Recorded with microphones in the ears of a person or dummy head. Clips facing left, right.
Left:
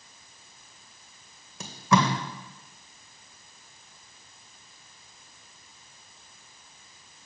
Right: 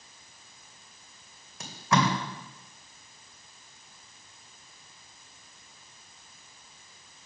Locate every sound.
1.6 s tape being pulled: 75° left (ahead or behind), 2 m